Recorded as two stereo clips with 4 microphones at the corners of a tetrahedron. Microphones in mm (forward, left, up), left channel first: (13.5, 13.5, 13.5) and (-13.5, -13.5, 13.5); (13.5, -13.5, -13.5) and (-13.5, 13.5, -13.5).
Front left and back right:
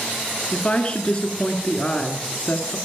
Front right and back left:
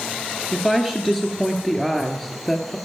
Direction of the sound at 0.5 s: 30° left.